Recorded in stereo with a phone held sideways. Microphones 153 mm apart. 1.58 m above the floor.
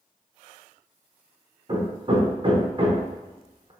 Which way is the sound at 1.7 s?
35° right (ahead or behind).